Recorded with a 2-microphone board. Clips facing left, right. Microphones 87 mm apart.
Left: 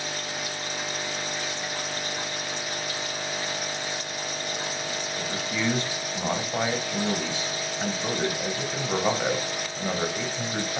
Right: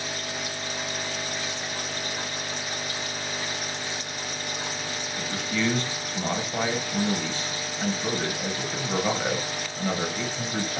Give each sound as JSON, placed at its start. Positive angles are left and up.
{"t": 5.2, "sound": "a man speaking", "side_deg": 15, "distance_m": 1.0}